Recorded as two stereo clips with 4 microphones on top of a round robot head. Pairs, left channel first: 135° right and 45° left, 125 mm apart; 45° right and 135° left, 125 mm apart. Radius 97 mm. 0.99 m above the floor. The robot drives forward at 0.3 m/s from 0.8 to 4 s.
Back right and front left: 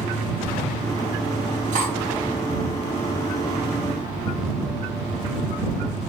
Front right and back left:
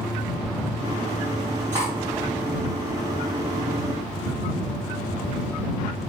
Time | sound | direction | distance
1.7 | cutlery clinking | 60° left | 1.0 m